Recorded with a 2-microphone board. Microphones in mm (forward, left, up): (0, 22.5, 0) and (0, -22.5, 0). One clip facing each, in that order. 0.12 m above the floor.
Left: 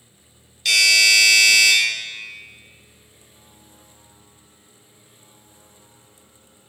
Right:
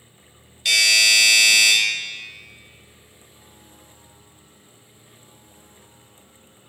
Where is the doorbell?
15° right (ahead or behind), 1.8 m.